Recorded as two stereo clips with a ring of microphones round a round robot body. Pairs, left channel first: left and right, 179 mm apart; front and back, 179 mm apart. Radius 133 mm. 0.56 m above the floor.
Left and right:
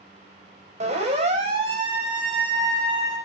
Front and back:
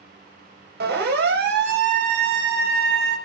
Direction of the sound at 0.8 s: 145° right.